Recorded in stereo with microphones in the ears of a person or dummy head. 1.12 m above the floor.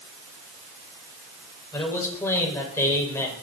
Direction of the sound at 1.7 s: 20° left (ahead or behind).